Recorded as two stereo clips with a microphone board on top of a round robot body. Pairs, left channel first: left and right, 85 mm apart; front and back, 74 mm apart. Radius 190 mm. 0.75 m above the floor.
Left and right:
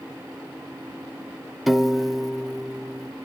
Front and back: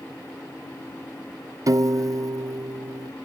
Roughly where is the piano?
Behind.